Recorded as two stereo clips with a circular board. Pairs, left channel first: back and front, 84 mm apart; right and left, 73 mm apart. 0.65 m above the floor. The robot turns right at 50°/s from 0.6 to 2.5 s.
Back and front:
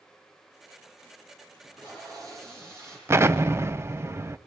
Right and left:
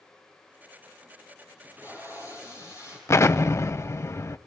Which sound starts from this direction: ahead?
Tape being pulled, at 1.6 s.